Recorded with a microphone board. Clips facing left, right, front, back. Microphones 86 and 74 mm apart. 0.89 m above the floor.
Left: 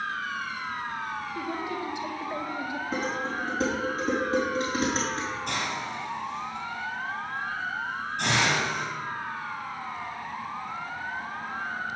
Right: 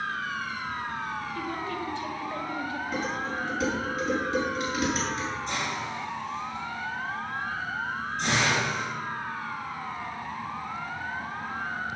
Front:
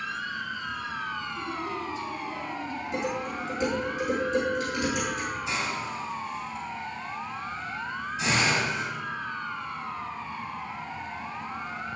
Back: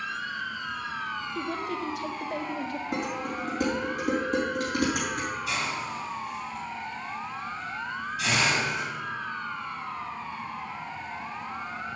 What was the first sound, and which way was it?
A woman speaking, 160° left.